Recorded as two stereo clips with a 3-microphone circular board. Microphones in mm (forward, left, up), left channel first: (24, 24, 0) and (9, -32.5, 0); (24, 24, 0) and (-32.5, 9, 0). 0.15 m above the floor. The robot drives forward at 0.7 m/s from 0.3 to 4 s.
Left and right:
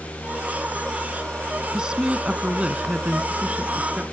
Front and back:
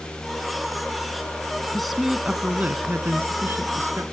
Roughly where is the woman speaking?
Ahead right.